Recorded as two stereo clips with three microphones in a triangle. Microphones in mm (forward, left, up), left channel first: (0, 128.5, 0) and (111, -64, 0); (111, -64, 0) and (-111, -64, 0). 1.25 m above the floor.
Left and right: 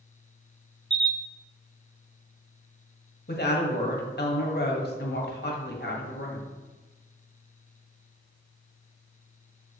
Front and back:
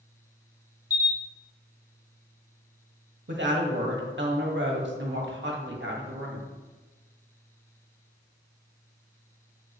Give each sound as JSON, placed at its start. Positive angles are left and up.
{"t": 0.9, "sound": "a camera shutter", "azimuth_deg": -70, "distance_m": 1.1}
{"t": 3.3, "sound": "a woman speaking", "azimuth_deg": 155, "distance_m": 1.4}